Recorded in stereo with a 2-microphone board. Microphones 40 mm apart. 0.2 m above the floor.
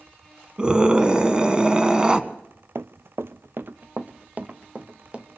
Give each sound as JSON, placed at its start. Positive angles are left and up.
{"t": 0.6, "sound": "a scream", "side_deg": -20, "distance_m": 1.5}
{"t": 2.8, "sound": "running footsteps", "side_deg": -70, "distance_m": 0.6}